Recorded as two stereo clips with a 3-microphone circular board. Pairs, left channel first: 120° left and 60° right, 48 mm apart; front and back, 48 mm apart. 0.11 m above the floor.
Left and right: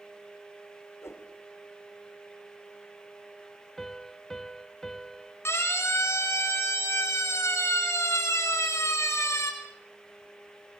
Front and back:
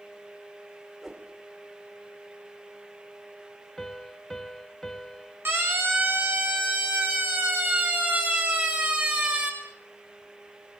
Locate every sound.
1.0 s a whoosh: 95° left, 5.5 m
3.8 s a piano: 60° left, 1.0 m
5.5 s a siren: 145° left, 6 m; by 9.5 s 120° left, 6.5 m